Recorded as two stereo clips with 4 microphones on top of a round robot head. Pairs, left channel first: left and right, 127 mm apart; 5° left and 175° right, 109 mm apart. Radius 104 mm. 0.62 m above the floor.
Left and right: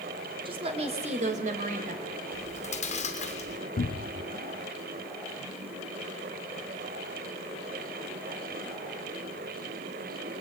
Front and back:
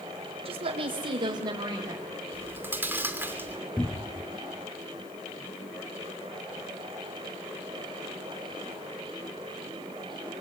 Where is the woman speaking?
140° right, 3 m; by 2.0 s 105° right, 4 m.